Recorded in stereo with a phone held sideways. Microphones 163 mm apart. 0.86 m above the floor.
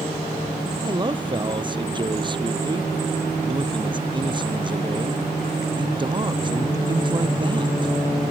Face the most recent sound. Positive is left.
turn(degrees=-30)  # may be behind; listen again after turning